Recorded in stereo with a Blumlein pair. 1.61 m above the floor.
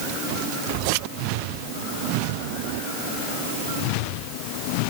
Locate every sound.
Only background noise.